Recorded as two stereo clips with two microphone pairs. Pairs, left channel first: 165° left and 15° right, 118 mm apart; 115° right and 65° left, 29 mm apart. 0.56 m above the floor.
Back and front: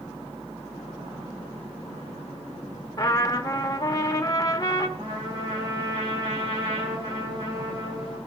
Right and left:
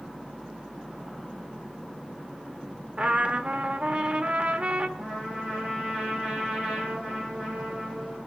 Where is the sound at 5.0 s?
25° left, 6 m.